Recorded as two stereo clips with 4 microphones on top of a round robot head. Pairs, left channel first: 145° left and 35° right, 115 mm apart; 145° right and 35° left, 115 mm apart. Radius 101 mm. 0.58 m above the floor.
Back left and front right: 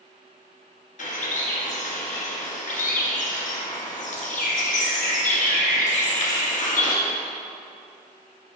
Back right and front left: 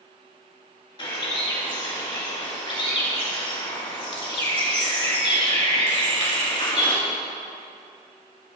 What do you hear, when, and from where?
1.0 s a bird: 165° left, 2 m